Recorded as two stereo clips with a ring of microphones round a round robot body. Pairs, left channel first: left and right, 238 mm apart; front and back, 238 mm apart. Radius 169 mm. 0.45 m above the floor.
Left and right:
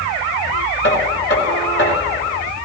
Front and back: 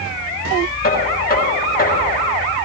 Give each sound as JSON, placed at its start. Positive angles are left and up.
{"t": 0.8, "sound": "knocking", "azimuth_deg": 50, "distance_m": 5.5}